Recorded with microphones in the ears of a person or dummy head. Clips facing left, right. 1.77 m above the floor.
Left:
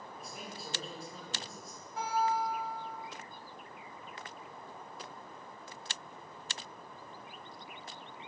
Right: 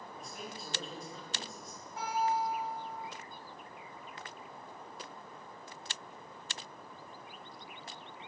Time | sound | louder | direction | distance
0.2 | a man speaking | right 1 dB | centre (ahead or behind) | 0.7 m
2.0 | a guitar | left 1 dB | 65° left (ahead or behind) | 1.7 m